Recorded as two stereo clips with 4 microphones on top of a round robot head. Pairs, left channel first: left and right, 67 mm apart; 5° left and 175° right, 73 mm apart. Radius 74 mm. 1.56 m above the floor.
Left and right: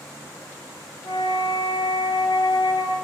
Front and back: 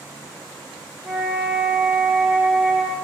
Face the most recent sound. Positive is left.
turn(degrees=110)